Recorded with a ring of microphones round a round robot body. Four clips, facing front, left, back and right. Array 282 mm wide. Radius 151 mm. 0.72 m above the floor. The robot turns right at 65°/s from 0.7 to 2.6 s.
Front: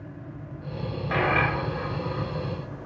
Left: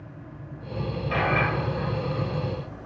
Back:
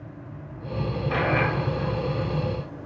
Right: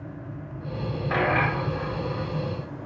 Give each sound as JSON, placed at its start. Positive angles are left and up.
{"t": 1.1, "sound": "a dropped coin", "azimuth_deg": -85, "distance_m": 3.0}